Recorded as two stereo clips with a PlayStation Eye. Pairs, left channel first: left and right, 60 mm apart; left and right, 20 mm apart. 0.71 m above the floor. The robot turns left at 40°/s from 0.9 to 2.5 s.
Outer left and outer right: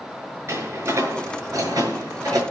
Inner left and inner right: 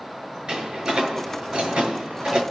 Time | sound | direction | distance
0.5 | a door slam | 50° right (ahead or behind) | 6.5 m